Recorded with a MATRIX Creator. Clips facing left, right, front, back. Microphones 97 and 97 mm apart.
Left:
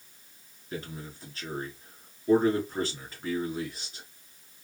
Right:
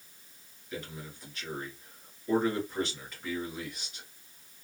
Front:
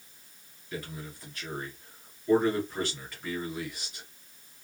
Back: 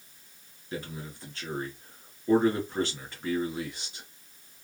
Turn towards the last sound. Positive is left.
turn(degrees=130)